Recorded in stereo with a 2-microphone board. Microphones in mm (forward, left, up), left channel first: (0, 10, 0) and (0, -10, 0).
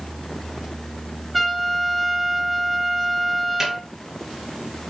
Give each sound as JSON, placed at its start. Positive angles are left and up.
{"t": 1.3, "sound": "a trumpet", "side_deg": 0, "distance_m": 1.1}
{"t": 3.6, "sound": "a snare drum", "side_deg": -20, "distance_m": 2.5}